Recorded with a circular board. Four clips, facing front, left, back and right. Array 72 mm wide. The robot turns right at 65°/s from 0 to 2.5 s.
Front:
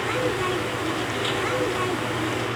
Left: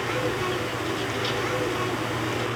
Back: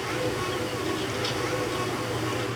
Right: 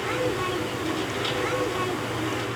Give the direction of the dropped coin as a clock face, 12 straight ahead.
No dropped coin in this recording.